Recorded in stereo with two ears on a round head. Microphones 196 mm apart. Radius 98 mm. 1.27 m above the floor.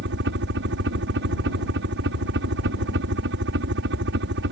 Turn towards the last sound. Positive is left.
turn(degrees=-60)  # may be behind; listen again after turning